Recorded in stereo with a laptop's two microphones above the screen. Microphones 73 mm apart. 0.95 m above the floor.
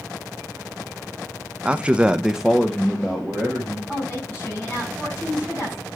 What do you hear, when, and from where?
1.6 s a man speaking: 15° right (ahead or behind), 0.7 m; by 3.8 s 5° left (ahead or behind), 1.7 m
3.9 s a woman speaking: 20° left (ahead or behind), 5.5 m